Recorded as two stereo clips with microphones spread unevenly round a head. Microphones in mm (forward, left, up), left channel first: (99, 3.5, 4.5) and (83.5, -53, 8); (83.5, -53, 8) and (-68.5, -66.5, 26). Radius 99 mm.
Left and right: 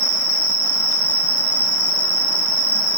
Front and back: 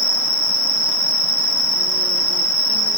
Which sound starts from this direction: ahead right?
An insect, at 0.0 s.